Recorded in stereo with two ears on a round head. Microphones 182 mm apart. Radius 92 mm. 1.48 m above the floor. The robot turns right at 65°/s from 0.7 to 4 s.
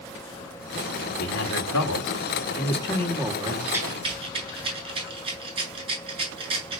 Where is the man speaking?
50° left, 4 m; by 3.6 s 155° right, 4 m.